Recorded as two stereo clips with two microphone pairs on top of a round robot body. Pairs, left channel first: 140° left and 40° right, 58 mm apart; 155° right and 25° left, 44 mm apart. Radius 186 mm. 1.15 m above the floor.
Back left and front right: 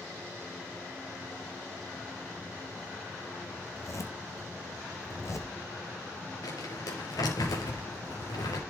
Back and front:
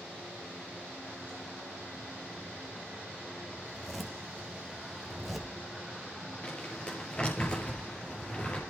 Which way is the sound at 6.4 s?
140° left.